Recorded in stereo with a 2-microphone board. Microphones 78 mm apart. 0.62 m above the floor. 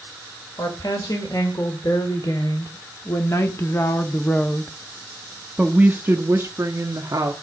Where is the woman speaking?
55° left (ahead or behind), 2.5 m; by 7.3 s 50° right (ahead or behind), 1.6 m.